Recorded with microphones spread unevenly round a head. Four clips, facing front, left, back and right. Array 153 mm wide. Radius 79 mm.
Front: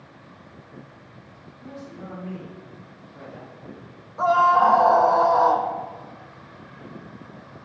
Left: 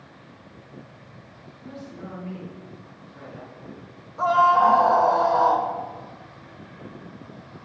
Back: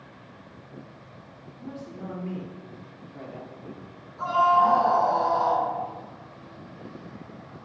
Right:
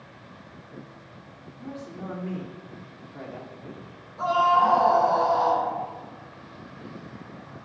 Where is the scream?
25° left, 2.5 m.